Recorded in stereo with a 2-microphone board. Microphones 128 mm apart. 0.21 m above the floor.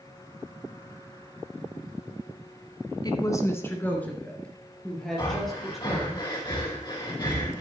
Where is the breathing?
35° left (ahead or behind), 4 m.